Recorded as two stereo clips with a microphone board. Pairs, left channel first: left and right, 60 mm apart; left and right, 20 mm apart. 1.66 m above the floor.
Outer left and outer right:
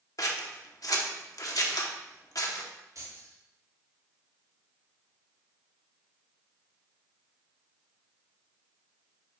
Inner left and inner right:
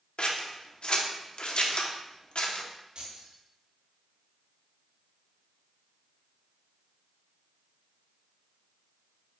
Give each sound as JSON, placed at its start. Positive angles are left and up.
{"t": 0.2, "sound": "scissors", "side_deg": 65, "distance_m": 1.0}
{"t": 3.0, "sound": "keys jangling", "side_deg": -60, "distance_m": 3.0}